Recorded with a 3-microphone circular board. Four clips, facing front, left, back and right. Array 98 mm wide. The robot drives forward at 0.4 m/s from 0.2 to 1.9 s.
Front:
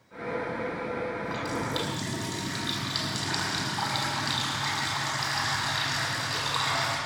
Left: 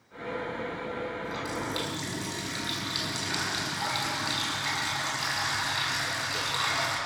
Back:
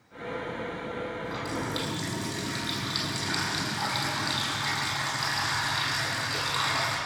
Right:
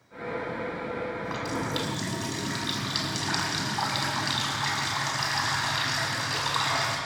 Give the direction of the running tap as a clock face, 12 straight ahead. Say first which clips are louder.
Right 2 dB, front 1 dB; 3 o'clock.